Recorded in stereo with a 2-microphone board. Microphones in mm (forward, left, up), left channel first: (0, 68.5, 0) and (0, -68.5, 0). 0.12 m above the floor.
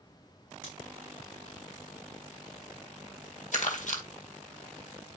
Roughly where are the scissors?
Left.